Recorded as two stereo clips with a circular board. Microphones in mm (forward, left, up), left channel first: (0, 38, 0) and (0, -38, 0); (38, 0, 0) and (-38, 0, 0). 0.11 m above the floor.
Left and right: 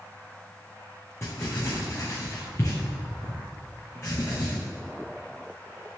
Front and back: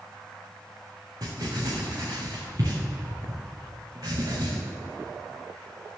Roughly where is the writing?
Behind left.